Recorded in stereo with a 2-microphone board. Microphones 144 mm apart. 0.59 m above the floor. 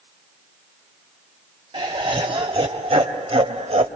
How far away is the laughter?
About 3.5 m.